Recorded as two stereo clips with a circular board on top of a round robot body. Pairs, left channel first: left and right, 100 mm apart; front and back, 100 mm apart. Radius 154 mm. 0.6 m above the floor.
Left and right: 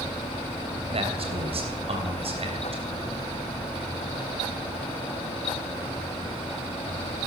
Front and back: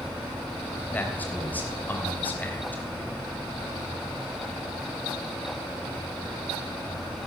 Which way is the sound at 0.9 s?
75° right.